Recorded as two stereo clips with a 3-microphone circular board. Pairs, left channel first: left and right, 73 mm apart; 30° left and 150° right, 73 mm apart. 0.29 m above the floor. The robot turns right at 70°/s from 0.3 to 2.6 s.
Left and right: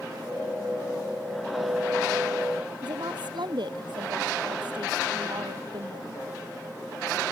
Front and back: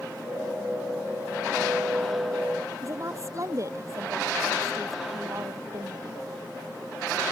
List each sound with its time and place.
2.8 s a woman speaking: 100° right